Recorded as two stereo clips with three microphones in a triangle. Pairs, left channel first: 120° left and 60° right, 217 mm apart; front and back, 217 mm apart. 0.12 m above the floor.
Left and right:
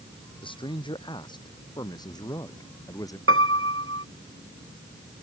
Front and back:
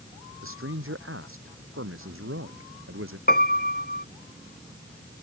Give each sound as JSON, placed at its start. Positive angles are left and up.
{"t": 0.4, "sound": "a man speaking", "azimuth_deg": -175}
{"t": 3.3, "sound": "a piano", "azimuth_deg": -45}